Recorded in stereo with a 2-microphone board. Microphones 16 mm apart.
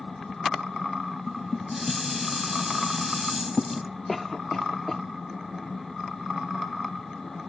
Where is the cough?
15° left (ahead or behind).